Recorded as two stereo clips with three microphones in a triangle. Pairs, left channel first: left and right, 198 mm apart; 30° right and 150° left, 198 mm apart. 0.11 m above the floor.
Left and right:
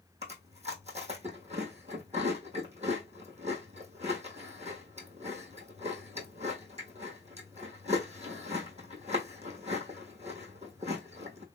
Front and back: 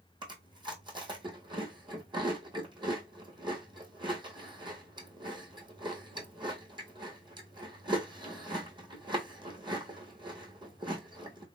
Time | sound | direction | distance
0.2 | chewing | 145° right | 1.3 m